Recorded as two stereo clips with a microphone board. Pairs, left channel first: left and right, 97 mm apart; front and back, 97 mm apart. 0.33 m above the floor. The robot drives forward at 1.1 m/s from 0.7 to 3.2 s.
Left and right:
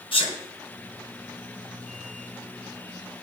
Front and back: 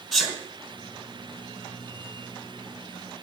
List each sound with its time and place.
0.1 s a sneeze: 85° left, 3 m